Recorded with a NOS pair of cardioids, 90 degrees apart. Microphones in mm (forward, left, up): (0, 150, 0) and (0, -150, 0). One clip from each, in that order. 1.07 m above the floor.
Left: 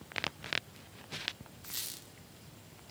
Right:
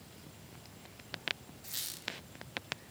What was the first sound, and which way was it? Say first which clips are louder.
A squeak: right 2 dB; straight ahead.